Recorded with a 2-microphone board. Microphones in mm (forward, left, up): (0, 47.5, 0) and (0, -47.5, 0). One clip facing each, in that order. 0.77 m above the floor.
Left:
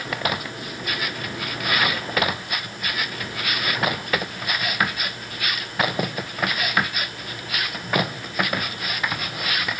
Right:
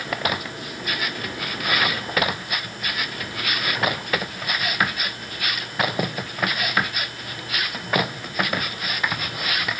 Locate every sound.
Only background noise.